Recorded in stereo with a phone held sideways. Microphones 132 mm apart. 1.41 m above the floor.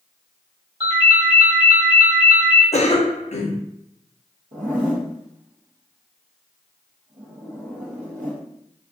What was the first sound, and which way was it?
A ringtone, 40° right (ahead or behind).